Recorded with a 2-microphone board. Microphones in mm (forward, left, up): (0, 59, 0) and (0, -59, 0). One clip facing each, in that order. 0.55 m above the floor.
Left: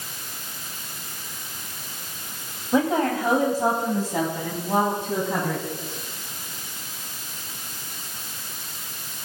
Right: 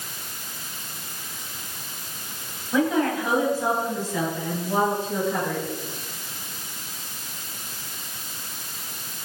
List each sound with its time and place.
2.7 s a woman speaking: 30° left (ahead or behind), 2.5 m; by 5.6 s 55° left (ahead or behind), 4 m